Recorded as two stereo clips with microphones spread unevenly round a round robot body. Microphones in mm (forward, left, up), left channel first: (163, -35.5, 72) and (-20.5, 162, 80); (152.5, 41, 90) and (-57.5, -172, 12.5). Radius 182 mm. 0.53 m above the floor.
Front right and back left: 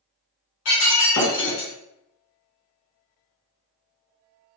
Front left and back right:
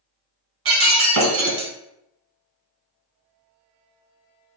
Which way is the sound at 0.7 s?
90° right.